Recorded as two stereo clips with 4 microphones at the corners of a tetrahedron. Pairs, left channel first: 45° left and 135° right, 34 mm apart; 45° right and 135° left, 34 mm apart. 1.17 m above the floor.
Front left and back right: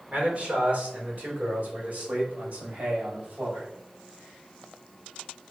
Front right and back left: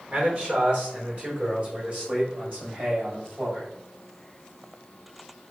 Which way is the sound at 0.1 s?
175° right.